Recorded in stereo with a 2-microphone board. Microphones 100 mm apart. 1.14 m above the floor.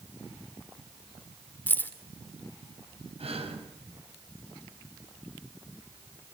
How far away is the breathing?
About 5.5 m.